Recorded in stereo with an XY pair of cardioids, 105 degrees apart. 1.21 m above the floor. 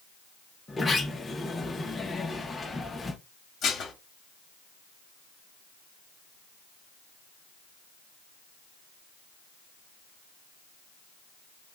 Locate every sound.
0.7 s a sliding door: 25° left, 0.9 m
3.6 s dishes clattering: 55° left, 1.3 m